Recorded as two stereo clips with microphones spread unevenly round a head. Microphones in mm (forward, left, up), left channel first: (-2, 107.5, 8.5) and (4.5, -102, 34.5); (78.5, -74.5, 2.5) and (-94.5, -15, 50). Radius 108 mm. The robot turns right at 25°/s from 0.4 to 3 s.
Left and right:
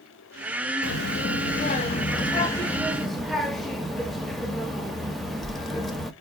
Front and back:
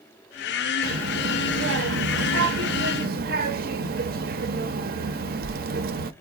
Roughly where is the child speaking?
Behind left.